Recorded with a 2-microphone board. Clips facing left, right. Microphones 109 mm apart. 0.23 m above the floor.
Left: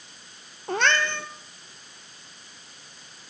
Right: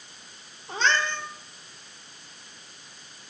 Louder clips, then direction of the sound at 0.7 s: Left 2 dB; 65° left (ahead or behind).